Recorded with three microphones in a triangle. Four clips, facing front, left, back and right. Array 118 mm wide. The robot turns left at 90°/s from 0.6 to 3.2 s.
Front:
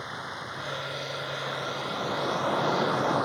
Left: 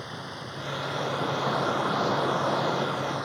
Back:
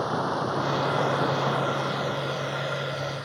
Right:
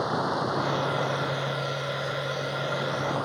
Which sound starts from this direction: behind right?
Running water, at 0.0 s.